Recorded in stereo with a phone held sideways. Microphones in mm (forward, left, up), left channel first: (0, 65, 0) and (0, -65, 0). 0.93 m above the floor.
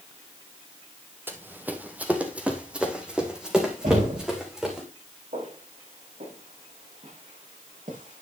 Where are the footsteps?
75° right (ahead or behind), 5.5 m; by 8.2 s 85° right, 6.5 m.